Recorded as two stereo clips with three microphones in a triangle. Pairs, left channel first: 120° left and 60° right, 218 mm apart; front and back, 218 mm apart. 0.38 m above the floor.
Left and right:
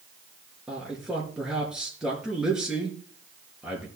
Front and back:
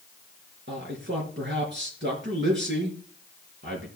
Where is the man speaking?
145° right, 4.5 m.